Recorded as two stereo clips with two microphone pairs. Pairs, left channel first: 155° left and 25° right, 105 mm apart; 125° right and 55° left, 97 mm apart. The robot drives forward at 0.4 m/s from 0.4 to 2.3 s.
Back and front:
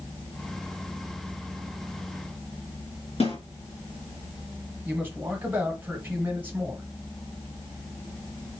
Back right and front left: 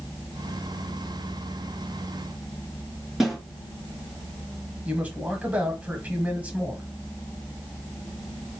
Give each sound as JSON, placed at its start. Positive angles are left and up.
{"t": 3.2, "sound": "a snare drum", "azimuth_deg": 140, "distance_m": 2.5}
{"t": 4.8, "sound": "a man speaking", "azimuth_deg": 10, "distance_m": 0.9}